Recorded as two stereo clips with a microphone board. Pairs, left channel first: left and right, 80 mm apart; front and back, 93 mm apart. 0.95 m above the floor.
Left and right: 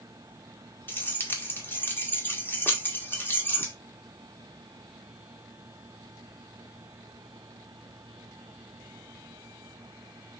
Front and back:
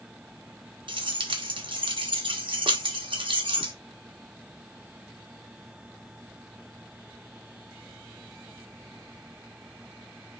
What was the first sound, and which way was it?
Keys jangling, 150° left.